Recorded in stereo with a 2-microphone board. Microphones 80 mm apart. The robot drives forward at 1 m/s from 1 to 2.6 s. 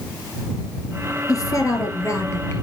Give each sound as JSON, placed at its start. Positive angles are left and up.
{"t": 1.3, "sound": "a woman speaking", "side_deg": 45, "distance_m": 1.8}